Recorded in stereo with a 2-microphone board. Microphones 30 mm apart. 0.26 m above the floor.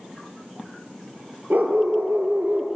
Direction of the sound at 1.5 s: 65° right (ahead or behind).